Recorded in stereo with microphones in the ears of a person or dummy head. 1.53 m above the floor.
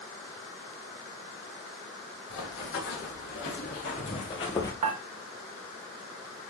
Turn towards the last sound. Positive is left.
turn(degrees=-40)  # may be behind; listen again after turning